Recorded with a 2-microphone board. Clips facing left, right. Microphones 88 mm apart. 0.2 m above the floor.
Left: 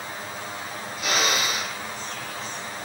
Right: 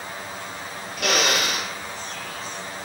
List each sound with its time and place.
1.0 s a drill: 65° right (ahead or behind), 3.5 m